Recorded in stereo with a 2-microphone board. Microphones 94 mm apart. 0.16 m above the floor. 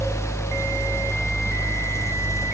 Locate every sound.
Only background noise.